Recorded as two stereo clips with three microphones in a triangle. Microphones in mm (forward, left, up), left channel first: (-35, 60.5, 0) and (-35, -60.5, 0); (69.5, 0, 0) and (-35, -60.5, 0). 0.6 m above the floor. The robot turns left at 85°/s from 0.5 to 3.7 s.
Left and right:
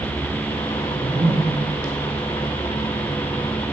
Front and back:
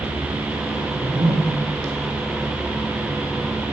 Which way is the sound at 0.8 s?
100° right.